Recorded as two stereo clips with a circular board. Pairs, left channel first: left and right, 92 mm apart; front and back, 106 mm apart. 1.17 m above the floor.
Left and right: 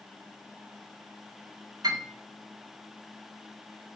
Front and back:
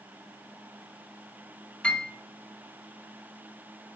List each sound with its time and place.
1.8 s a piano: 75° right, 0.6 m